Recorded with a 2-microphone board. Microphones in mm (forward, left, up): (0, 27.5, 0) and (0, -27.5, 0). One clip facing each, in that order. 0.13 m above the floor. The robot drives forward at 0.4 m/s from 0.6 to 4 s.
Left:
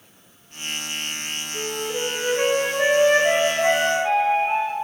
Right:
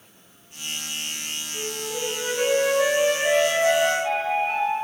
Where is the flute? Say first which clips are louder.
Left 4 dB; 20° left (ahead or behind), 5 m.